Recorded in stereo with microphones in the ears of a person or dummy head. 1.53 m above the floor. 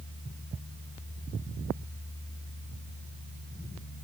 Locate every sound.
Only background noise.